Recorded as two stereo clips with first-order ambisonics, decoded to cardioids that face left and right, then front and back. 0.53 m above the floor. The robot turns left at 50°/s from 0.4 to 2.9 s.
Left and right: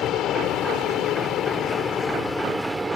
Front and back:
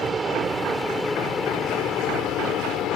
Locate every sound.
0.0 s an aircraft: 115° left; by 3.0 s 20° right